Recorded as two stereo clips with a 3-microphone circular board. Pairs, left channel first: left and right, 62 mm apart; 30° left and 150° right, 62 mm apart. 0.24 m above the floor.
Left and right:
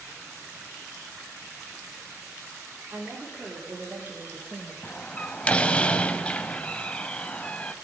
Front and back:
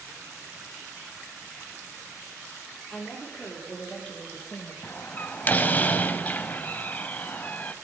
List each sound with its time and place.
2.9 s a woman speaking: 40° right, 5 m; by 4.7 s 30° right, 4 m
4.8 s a door slam: 40° left, 0.8 m